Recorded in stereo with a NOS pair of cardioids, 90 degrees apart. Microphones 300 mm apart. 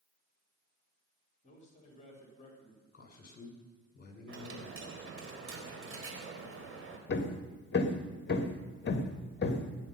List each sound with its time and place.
1.4 s a man speaking: 25° left, 4 m
2.9 s a man speaking: 35° left, 5 m
4.3 s a dropped coin: 45° right, 3.5 m
7.1 s hammering: 35° left, 1.7 m